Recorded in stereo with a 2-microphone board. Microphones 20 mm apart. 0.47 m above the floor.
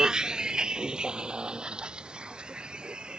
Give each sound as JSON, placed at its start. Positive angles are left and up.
{"t": 0.0, "sound": "a vehicle", "side_deg": -35}